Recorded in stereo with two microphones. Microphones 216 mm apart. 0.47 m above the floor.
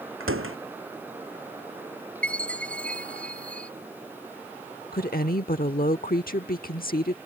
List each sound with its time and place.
0.2 s a door slam: 75° right (ahead or behind)
2.2 s a chime: 5° left (ahead or behind)
4.9 s a woman speaking: 45° left (ahead or behind)